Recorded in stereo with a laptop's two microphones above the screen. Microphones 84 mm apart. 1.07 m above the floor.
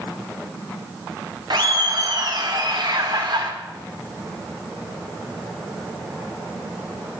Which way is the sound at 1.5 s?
55° right (ahead or behind).